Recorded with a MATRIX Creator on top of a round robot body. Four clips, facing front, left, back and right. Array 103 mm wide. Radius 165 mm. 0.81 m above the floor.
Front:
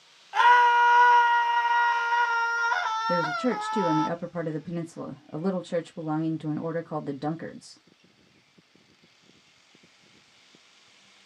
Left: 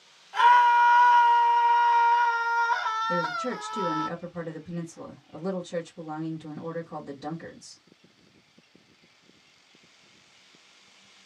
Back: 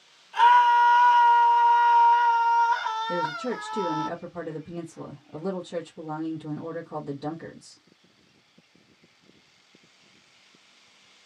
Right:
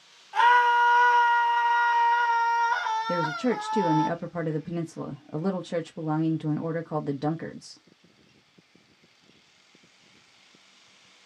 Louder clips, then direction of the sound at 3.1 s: Right 3 dB, front 3 dB; 50° right.